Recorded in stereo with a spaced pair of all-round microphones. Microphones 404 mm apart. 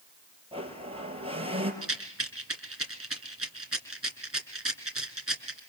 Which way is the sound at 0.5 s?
15° right (ahead or behind).